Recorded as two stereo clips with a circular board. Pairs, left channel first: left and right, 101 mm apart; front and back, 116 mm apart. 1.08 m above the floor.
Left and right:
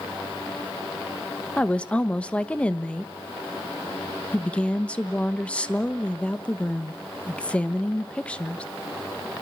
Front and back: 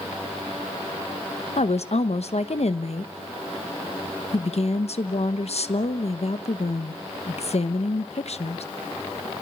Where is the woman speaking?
15° left, 1.1 m.